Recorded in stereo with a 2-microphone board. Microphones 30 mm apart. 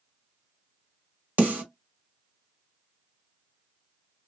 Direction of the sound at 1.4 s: 55° right (ahead or behind).